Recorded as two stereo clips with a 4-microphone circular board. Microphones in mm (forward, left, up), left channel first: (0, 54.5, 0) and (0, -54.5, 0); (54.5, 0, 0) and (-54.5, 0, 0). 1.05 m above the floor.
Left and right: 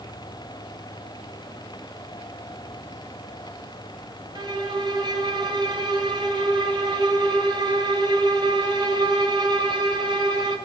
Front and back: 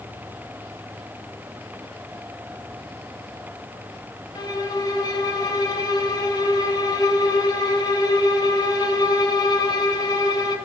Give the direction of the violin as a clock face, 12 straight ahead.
2 o'clock.